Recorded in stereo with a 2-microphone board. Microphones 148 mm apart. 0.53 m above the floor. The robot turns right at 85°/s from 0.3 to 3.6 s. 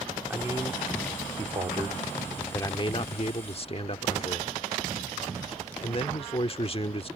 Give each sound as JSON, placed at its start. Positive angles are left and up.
{"t": 0.3, "sound": "a man speaking", "azimuth_deg": -165}